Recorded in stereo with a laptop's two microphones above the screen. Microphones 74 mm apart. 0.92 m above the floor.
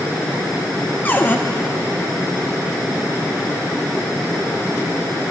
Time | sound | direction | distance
1.1 | a cupboard door | 25° left (ahead or behind) | 0.5 m